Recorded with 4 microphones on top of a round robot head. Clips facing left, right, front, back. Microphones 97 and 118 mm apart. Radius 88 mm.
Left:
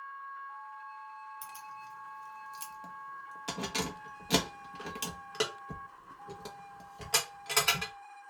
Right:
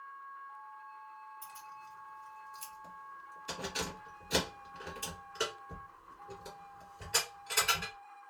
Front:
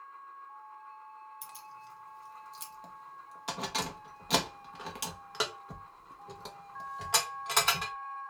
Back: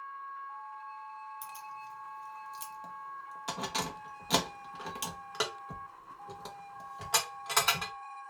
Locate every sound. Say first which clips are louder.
1.4 s keys jangling: left 4 dB, back 4 dB; 90° left, 0.7 m